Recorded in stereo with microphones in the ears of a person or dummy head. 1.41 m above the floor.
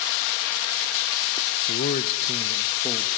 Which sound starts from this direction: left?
A man speaking, at 1.7 s.